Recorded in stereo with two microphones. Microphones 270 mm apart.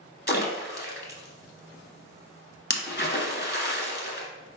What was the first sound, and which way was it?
A splash, 40° left (ahead or behind).